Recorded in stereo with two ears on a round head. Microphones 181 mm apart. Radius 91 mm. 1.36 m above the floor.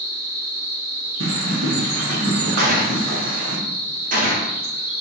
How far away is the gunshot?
About 1.1 m.